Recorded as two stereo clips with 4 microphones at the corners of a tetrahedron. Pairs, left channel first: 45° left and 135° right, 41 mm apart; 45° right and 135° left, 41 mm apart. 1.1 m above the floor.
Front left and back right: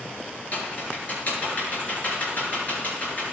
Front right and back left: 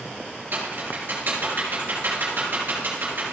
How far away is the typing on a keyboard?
About 4.5 m.